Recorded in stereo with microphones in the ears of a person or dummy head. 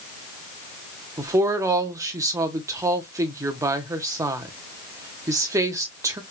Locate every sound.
1.2 s a woman speaking: 15° right (ahead or behind), 0.7 m